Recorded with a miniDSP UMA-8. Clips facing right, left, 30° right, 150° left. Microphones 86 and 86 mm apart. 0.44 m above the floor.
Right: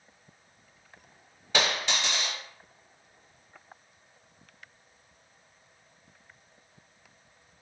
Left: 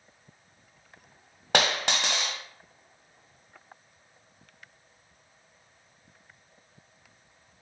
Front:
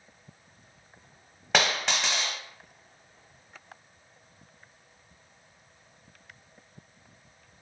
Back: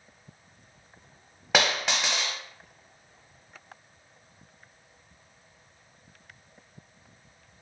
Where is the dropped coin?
65° left, 0.6 m.